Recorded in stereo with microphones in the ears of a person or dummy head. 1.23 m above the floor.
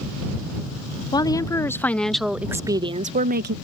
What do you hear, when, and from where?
1.1 s a woman speaking: 25° left (ahead or behind); by 3.5 s 55° right (ahead or behind)